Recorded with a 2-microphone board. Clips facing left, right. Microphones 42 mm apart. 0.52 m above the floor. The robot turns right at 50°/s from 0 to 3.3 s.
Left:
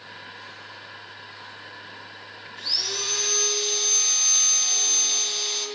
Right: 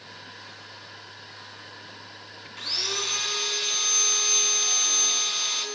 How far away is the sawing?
About 3 m.